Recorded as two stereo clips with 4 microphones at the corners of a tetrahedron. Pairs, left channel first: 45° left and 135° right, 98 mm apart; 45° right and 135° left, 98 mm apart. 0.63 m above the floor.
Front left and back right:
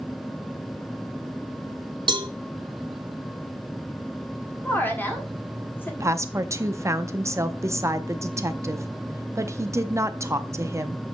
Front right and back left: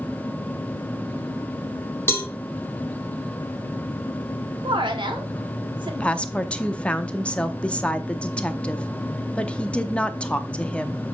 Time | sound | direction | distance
2.1 | a cowbell | 110° right | 0.9 m
4.6 | a woman speaking | 115° left | 1.5 m
6.0 | a woman speaking | 110° right | 0.6 m